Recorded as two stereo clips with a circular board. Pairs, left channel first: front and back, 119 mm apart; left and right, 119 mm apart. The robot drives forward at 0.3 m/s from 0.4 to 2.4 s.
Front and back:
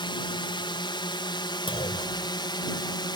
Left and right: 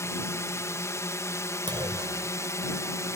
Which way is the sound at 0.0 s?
30° left.